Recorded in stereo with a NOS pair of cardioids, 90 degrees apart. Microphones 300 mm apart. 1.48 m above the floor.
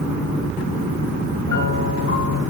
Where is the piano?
65° left, 6.5 m.